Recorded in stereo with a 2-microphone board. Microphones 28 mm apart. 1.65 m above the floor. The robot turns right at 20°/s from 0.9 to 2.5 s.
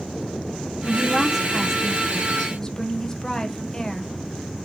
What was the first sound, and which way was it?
A woman speaking, 10° right.